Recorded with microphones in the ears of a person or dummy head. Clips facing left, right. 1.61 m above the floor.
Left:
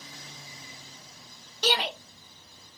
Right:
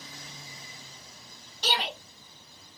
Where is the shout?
60° left (ahead or behind), 1.2 m.